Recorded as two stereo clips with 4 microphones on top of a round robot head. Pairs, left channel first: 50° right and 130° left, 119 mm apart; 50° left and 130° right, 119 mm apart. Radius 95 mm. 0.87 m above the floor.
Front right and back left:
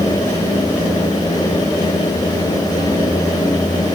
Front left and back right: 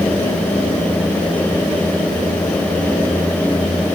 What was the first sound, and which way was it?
Only background noise.